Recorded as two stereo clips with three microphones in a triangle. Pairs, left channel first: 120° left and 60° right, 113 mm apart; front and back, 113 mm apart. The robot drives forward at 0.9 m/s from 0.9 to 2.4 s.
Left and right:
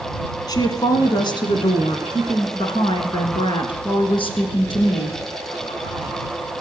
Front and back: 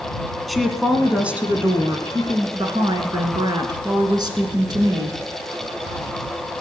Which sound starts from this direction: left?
A woman speaking, at 0.5 s.